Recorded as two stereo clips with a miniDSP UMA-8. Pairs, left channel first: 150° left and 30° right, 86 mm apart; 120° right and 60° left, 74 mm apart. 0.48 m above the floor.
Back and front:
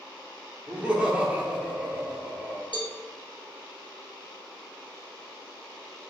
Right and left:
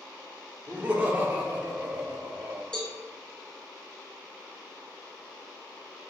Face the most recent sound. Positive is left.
turn(degrees=160)